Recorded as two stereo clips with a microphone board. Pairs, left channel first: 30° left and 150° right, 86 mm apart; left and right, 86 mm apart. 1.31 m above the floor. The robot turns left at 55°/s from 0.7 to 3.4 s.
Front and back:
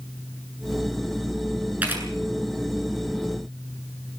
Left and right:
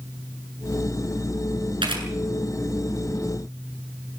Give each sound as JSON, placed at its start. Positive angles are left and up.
{"t": 1.8, "sound": "a camera shutter", "azimuth_deg": -80, "distance_m": 8.0}